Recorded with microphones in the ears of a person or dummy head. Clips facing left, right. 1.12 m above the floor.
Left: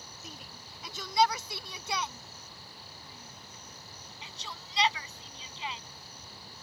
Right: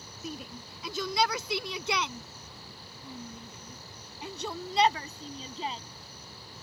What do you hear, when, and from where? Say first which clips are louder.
0.2 s a shout: right 12 dB; 65° right (ahead or behind); by 5.8 s 30° right (ahead or behind)